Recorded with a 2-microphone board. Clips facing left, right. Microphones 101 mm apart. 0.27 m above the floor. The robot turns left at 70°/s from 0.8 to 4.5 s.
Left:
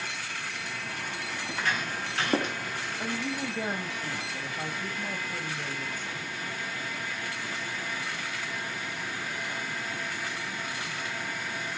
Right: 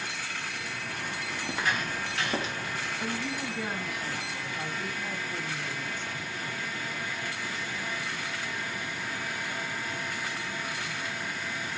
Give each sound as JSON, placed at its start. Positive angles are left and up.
{"t": 1.4, "sound": "footsteps", "side_deg": -25, "distance_m": 3.5}
{"t": 3.0, "sound": "a woman speaking", "azimuth_deg": 125, "distance_m": 1.4}